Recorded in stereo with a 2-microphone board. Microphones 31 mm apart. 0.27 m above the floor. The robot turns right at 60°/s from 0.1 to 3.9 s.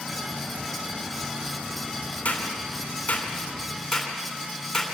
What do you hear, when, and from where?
2.2 s a clap: 60° left (ahead or behind), 3 m; by 4.9 s 5° left (ahead or behind), 3 m